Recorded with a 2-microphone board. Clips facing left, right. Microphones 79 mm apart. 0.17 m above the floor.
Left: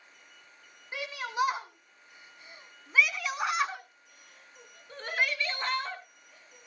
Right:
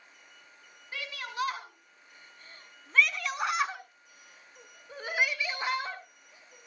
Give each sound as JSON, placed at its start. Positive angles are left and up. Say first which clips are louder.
{"t": 0.9, "sound": "a shout", "louder": "left 4 dB", "side_deg": 20, "distance_m": 1.7}